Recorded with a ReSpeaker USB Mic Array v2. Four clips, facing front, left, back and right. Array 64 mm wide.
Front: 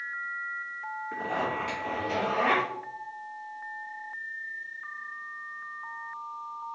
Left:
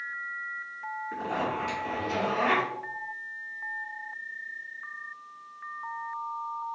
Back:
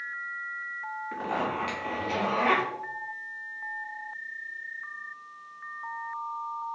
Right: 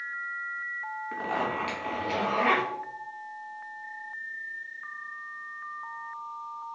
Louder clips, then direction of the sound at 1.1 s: Right 1 dB, even; 110° right.